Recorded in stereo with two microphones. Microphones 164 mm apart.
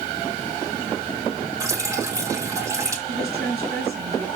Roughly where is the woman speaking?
Right.